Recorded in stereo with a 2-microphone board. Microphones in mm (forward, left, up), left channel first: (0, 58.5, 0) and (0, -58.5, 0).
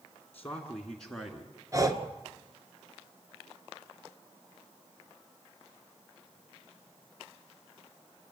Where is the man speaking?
15° left (ahead or behind), 1.7 m; by 1.5 s centre (ahead or behind), 2.0 m.